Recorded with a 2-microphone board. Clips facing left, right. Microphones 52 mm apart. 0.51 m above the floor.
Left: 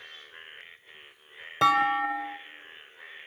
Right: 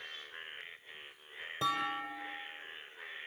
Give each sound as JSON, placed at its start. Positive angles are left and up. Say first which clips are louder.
{"t": 1.6, "sound": "a clunk", "louder": "left 12 dB", "side_deg": 85, "distance_m": 1.0}